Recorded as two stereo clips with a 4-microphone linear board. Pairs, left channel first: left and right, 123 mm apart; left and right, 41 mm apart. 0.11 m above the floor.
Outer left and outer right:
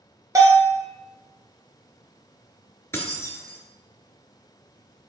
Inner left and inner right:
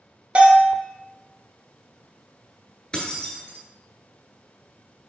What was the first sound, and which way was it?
A bell, 25° right (ahead or behind).